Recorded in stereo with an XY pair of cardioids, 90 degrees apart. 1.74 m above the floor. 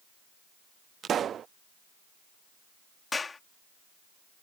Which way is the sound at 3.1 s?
30° left.